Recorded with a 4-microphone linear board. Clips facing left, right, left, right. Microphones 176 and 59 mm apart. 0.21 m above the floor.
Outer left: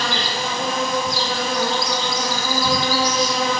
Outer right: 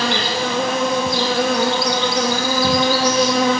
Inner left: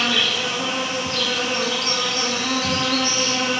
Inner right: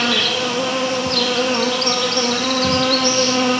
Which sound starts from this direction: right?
An insect, at 0.0 s.